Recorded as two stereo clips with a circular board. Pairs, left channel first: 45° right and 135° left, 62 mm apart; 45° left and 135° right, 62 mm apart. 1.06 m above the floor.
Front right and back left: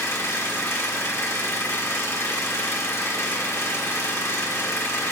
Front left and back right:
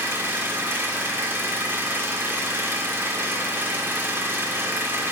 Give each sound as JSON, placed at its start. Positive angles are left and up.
{"t": 0.0, "sound": "an engine running", "azimuth_deg": -85, "distance_m": 1.3}